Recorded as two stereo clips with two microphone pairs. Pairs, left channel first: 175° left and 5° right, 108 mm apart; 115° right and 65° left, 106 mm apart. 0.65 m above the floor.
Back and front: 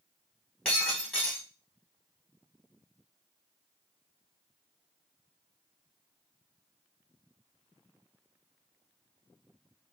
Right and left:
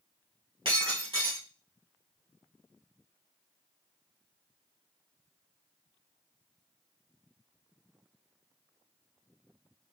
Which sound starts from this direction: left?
Breaking glass, at 0.7 s.